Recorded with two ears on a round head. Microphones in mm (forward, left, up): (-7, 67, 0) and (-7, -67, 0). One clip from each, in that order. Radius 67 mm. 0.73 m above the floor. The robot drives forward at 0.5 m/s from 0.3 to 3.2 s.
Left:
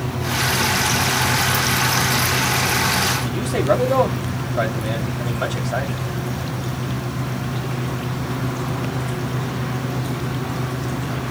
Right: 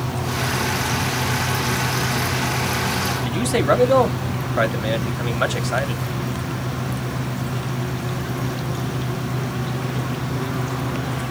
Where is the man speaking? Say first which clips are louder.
Right 1 dB; 60° right (ahead or behind), 1.4 m.